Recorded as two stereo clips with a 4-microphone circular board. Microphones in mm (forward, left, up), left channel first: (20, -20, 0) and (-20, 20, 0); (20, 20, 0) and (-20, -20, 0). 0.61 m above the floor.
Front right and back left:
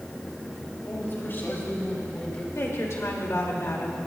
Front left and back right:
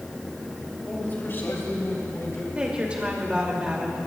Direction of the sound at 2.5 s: 70° right.